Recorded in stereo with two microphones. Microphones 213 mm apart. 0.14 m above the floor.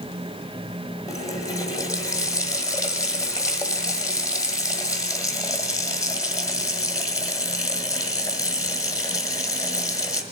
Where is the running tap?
15° left (ahead or behind), 1.4 m.